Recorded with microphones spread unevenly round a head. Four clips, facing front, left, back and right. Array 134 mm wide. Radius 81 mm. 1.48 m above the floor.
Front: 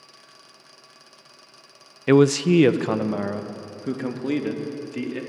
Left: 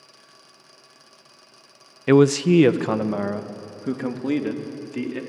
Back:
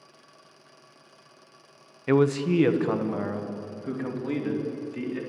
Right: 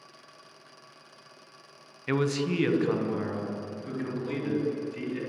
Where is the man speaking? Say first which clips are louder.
Left 12 dB, front 6 dB; 65° left, 0.9 m; by 5.2 s 85° left, 4 m.